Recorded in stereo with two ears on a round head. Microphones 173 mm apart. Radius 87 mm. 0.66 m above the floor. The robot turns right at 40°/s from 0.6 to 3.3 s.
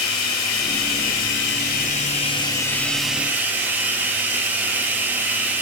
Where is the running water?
85° left, 1.9 m; by 5.6 s 170° right, 1.9 m.